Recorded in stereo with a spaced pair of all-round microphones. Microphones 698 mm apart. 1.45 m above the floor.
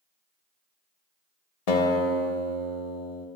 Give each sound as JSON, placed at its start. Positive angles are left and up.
{"t": 1.7, "sound": "a guitar", "side_deg": 65, "distance_m": 1.1}